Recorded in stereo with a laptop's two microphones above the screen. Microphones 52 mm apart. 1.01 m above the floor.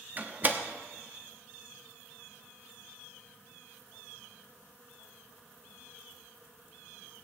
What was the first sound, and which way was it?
A door slam, 35° right (ahead or behind).